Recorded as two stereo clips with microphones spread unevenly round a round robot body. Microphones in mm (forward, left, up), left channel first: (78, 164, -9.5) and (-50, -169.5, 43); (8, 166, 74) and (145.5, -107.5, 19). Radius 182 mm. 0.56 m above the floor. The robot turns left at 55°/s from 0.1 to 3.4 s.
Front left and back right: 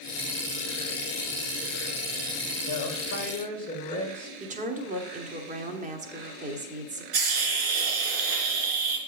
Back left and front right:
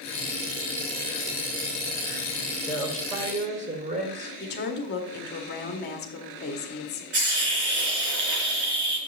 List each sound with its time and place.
2.7 s a woman speaking: 40° left, 2.5 m; by 4.3 s straight ahead, 2.5 m
4.4 s a woman speaking: 175° left, 1.0 m
7.1 s a hiss: 75° right, 3.5 m